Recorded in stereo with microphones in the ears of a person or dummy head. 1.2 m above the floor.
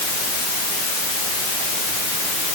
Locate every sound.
Only background noise.